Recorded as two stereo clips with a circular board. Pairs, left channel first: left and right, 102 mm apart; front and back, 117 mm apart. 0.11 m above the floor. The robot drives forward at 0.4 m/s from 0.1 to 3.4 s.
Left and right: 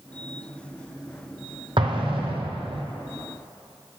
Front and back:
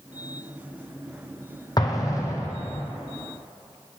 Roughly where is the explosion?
Ahead right.